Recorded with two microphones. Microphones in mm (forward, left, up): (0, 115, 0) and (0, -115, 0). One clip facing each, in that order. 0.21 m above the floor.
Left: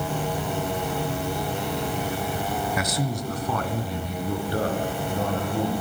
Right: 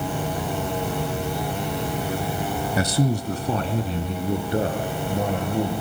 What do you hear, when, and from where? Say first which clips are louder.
2.8 s a man speaking: right 5 dB; 35° right (ahead or behind), 1.2 m; by 5.7 s 15° right (ahead or behind), 3.5 m